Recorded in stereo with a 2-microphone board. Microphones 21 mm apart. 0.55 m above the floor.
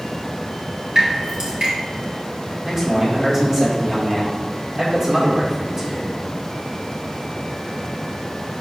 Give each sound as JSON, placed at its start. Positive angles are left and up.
{"t": 0.9, "sound": "dripping", "side_deg": -55, "distance_m": 3.0}
{"t": 2.6, "sound": "a man speaking", "side_deg": -25, "distance_m": 1.7}